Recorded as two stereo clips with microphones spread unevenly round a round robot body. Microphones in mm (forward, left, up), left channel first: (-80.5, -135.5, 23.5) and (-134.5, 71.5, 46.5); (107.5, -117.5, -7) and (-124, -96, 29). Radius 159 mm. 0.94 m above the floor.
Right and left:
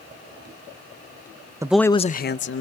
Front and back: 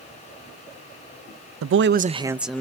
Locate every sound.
1.6 s a man speaking: 175° right, 0.5 m; by 2.6 s 85° right, 0.8 m